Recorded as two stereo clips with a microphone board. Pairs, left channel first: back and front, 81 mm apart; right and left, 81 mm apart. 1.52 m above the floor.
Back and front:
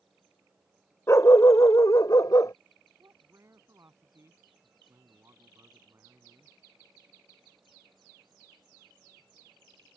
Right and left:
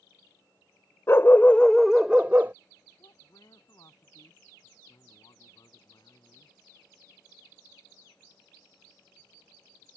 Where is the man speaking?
55° right.